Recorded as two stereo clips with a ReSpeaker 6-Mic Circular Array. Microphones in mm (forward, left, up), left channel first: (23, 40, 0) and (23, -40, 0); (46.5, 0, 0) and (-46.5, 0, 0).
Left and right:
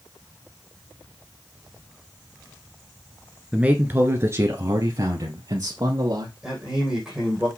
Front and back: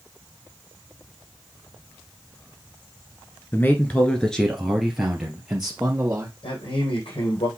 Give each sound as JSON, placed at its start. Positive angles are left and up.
{"t": 3.5, "sound": "a man speaking", "azimuth_deg": -30, "distance_m": 1.5}
{"t": 6.4, "sound": "a man speaking", "azimuth_deg": -10, "distance_m": 4.5}